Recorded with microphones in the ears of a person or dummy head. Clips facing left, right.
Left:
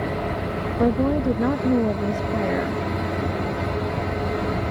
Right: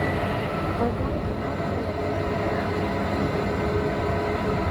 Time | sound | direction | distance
0.8 | a woman speaking | 40° left (ahead or behind) | ?